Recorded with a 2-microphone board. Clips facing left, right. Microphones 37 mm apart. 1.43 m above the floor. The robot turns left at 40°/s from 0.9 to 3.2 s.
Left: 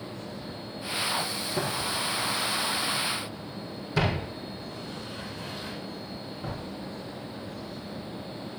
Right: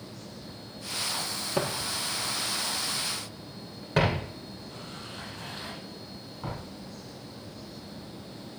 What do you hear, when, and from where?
1.6 s footsteps: 25° right (ahead or behind), 2.5 m; by 6.6 s 40° right (ahead or behind), 6.5 m